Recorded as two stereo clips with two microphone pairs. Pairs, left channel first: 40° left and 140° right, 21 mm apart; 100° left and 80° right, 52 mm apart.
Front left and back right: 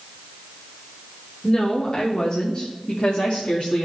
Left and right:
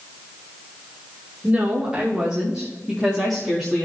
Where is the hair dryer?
I don't hear a hair dryer.